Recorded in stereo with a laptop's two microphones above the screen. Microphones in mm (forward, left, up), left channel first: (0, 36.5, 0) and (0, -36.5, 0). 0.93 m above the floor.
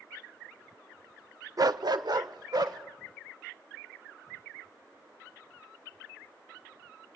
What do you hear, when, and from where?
1.6 s a dog barking: 50° right (ahead or behind), 0.6 m; by 2.8 s 65° right (ahead or behind), 2.0 m